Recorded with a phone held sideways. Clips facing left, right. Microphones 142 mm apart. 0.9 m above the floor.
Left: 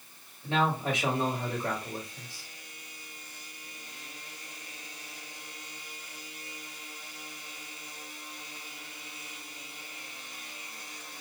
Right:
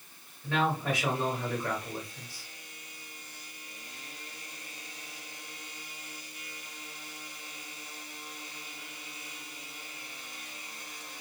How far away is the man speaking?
About 1.5 m.